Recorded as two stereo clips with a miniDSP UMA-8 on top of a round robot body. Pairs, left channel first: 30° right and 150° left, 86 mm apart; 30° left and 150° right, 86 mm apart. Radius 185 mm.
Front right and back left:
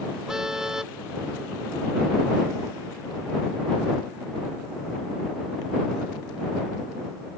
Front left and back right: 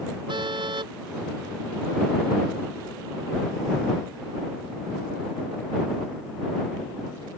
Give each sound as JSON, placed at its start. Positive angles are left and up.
{"t": 0.3, "sound": "a car horn", "azimuth_deg": -125}